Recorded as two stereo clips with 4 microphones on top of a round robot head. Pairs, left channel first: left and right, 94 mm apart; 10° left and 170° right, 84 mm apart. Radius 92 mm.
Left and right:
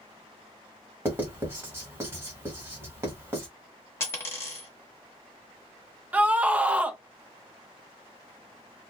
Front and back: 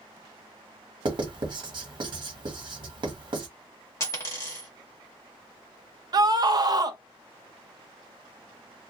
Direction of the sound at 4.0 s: 40° left.